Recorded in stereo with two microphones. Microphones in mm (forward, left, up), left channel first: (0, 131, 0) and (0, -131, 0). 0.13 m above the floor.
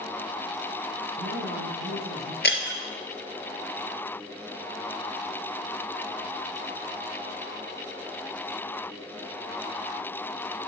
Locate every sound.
1.1 s a man speaking: 55° right (ahead or behind), 3.5 m
2.4 s breaking glass: 45° left (ahead or behind), 1.5 m